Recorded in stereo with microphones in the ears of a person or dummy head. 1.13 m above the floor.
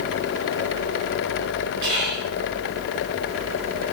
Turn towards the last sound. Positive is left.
turn(degrees=-60)  # may be behind; listen again after turning